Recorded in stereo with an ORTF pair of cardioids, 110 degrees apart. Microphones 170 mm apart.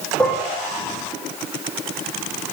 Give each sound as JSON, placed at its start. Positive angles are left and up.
{"t": 0.2, "sound": "dishes clattering", "azimuth_deg": 5, "distance_m": 2.0}